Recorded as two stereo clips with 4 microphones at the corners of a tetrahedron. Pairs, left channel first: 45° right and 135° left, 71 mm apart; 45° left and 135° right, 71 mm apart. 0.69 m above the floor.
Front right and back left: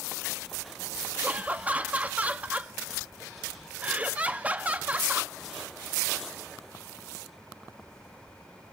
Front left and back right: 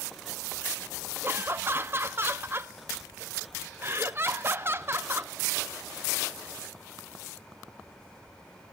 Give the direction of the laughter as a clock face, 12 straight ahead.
6 o'clock.